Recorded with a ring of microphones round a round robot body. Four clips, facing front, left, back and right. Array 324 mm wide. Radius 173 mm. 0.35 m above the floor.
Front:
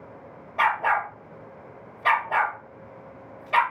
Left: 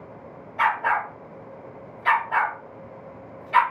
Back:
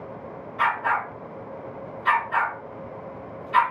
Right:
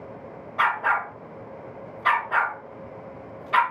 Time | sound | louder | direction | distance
0.6 | a dog barking | left 1 dB, front 1 dB | 30° right | 0.8 m